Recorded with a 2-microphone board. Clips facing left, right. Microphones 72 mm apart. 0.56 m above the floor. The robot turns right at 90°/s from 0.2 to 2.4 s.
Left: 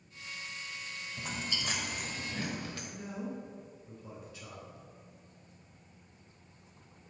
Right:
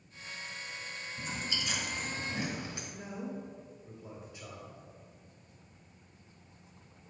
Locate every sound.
1.2 s chewing: 80° left, 1.2 m; by 2.8 s 20° right (ahead or behind), 1.2 m
2.9 s a man speaking: 15° right (ahead or behind), 2 m